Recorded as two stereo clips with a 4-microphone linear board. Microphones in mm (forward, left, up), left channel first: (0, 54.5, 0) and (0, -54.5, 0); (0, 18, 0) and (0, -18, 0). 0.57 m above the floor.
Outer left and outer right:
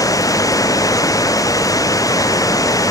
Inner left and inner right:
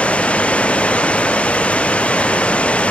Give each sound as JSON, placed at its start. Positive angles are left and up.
{"t": 0.0, "sound": "running water", "side_deg": 30}